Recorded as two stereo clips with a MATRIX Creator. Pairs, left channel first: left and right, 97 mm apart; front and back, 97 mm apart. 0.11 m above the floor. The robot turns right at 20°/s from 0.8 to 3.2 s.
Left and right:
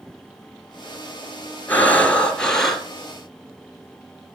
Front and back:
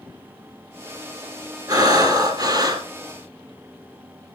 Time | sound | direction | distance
1.7 | breathing | 155° left | 1.5 m